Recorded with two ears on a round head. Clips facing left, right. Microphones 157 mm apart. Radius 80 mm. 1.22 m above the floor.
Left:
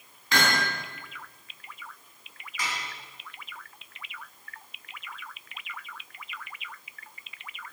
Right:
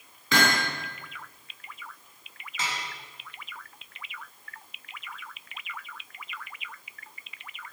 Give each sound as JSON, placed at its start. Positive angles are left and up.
{"t": 0.3, "sound": "hammering", "side_deg": -70, "distance_m": 9.5}
{"t": 2.6, "sound": "dishes clattering", "side_deg": -25, "distance_m": 7.0}